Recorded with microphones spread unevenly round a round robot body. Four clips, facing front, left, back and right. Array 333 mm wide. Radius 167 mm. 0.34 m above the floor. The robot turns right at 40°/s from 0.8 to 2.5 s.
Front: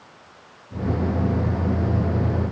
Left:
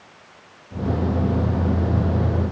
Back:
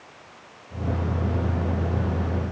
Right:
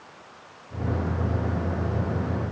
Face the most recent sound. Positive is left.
No sound to turn to.